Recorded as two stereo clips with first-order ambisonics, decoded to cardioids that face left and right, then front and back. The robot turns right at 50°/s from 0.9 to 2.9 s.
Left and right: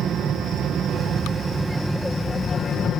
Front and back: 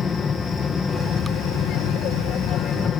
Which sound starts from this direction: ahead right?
An aircraft, at 0.0 s.